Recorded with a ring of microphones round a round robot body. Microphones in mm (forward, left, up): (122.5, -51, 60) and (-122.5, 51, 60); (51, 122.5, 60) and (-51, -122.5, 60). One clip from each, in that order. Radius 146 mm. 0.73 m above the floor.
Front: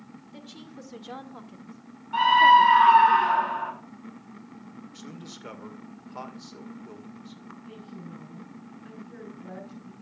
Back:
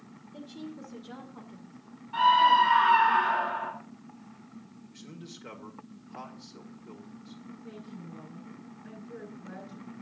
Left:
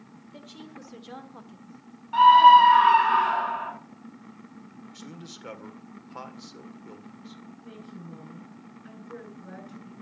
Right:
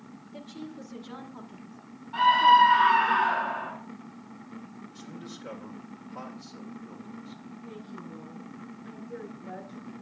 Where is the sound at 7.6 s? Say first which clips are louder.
Front 1 dB, right 3 dB; 65° left, 8.5 m.